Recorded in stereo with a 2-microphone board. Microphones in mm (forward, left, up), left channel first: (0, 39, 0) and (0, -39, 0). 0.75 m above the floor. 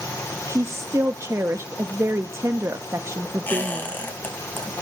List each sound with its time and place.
0.5 s a woman speaking: 40° right (ahead or behind), 0.7 m
3.5 s a squeak: 25° left (ahead or behind), 4.5 m